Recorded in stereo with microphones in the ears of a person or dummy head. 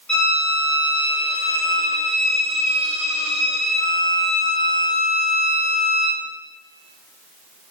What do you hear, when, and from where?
0.1 s a violin: 10° left (ahead or behind), 1.8 m